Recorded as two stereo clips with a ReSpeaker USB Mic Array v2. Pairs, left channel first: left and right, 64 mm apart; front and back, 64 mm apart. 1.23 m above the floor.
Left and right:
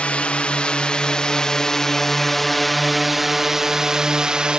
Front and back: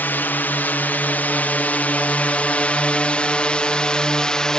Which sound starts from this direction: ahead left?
A drone, at 0.0 s.